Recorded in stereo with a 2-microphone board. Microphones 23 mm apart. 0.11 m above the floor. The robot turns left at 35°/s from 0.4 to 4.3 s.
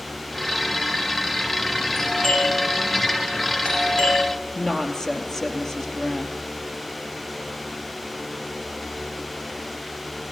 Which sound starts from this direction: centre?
A woman speaking, at 4.5 s.